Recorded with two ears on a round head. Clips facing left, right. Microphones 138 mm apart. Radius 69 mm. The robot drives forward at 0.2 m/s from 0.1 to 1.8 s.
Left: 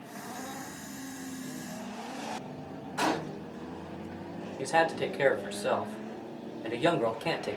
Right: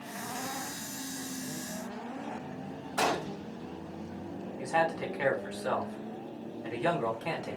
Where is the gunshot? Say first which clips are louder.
Even; 75° right (ahead or behind), 3 m.